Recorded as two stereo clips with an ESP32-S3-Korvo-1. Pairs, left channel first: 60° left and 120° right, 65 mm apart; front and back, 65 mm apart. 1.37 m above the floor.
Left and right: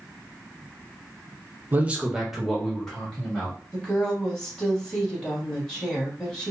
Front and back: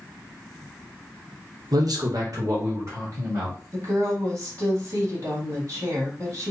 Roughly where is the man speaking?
Behind.